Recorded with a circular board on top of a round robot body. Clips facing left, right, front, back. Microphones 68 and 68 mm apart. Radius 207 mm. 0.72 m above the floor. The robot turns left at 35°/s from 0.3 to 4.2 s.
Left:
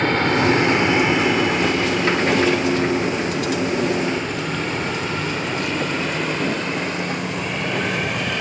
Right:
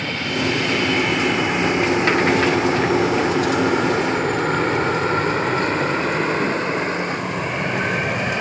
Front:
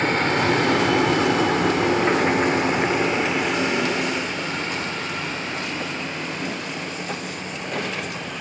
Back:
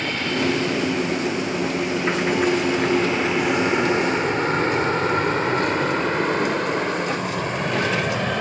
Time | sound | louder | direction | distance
0.0 | an aircraft | left 6 dB, front 3 dB | 50° left | ?